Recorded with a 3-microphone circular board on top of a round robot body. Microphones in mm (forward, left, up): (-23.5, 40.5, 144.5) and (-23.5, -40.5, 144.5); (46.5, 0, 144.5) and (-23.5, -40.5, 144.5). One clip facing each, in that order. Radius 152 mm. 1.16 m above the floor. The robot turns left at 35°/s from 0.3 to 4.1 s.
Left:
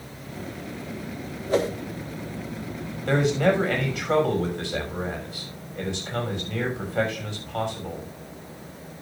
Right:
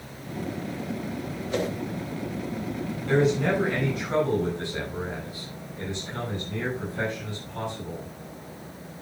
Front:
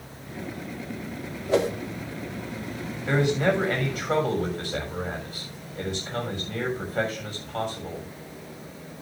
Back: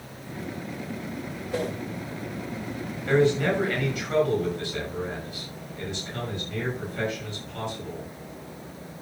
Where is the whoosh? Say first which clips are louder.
Left 5 dB, front 7 dB; 35° left, 1.3 m; by 1.7 s 30° left, 1.3 m.